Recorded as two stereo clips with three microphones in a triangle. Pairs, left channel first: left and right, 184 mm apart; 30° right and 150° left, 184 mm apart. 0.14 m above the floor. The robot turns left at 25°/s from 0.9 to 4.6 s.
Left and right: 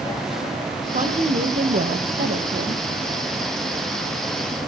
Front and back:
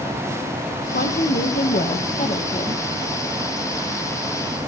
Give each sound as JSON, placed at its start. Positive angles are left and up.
{"t": 0.9, "sound": "a woman speaking", "azimuth_deg": -45, "distance_m": 3.5}